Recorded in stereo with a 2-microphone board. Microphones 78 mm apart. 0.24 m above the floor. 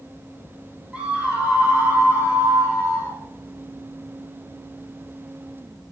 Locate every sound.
0.9 s a scream: 15° right (ahead or behind), 1.9 m; by 3.2 s 30° right (ahead or behind), 3.5 m